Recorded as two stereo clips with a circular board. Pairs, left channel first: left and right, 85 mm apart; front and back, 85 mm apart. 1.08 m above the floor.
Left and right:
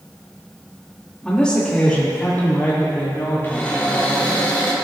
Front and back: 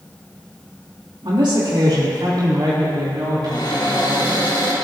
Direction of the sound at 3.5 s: 20° left.